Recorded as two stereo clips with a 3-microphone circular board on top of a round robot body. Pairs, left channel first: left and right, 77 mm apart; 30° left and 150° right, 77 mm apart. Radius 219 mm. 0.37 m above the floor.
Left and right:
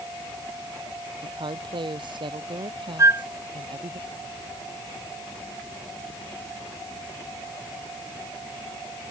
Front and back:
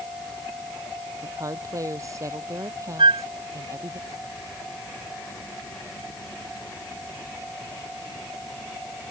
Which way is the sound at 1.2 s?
100° right.